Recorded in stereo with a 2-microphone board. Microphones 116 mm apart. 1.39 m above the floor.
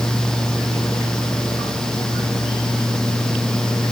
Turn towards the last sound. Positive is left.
No sound to turn to.